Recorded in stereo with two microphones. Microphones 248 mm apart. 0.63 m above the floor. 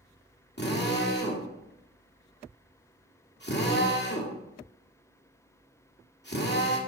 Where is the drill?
45° left (ahead or behind), 1.7 m.